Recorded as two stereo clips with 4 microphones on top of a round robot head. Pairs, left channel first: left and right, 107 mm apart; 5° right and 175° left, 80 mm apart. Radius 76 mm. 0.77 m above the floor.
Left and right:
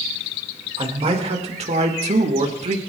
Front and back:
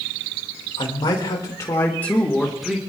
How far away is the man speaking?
About 3.5 m.